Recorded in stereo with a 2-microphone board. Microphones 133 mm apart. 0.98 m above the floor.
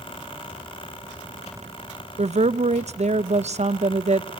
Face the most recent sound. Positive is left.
turn(degrees=-55)  # may be behind; listen again after turning